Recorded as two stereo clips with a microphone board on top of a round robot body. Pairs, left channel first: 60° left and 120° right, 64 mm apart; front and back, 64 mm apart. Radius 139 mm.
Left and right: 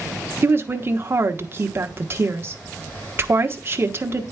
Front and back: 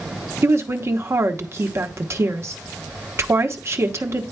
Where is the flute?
No flute in this recording.